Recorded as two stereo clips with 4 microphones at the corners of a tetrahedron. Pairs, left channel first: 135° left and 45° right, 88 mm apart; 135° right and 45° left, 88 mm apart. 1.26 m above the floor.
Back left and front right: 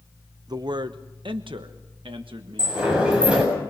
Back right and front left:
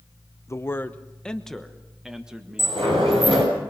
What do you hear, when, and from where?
0.5 s a man speaking: 80° right, 0.8 m; by 2.8 s 30° right, 1.7 m
2.6 s a sliding door: 35° left, 7.5 m